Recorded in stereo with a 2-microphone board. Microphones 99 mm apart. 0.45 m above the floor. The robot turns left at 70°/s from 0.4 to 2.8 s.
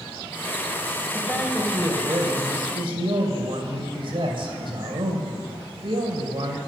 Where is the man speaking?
20° left, 2.5 m; by 6.6 s 95° right, 2.5 m.